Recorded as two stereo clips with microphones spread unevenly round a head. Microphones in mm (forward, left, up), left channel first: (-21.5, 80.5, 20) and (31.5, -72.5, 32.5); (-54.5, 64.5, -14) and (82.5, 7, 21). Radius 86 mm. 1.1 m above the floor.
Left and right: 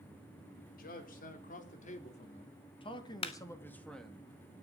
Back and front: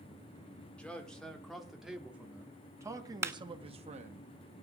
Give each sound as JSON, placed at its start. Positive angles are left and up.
{"t": 0.8, "sound": "a man speaking", "azimuth_deg": 75, "distance_m": 4.0}
{"t": 3.2, "sound": "a clap", "azimuth_deg": 50, "distance_m": 1.4}